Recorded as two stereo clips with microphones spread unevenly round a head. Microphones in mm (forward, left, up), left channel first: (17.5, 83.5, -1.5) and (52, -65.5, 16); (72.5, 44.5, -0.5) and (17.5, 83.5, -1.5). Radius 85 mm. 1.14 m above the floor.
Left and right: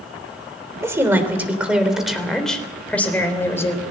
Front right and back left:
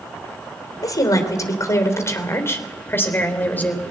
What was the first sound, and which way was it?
A woman speaking, 5° right.